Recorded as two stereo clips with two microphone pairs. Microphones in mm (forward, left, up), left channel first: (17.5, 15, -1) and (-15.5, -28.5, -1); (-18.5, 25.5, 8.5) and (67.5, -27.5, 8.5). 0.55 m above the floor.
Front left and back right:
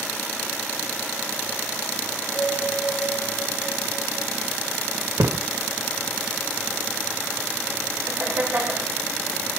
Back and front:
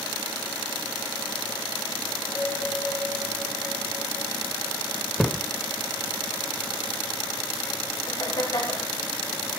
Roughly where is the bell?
Left.